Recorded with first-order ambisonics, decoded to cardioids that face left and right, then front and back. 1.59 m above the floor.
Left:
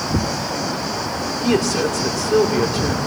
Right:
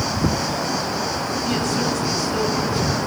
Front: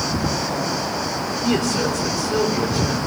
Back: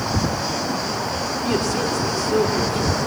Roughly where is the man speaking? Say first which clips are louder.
Left 6 dB, front 2 dB; left.